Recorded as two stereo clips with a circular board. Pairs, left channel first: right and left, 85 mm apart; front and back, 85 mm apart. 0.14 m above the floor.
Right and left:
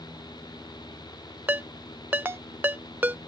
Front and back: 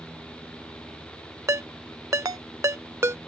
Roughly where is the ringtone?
Behind left.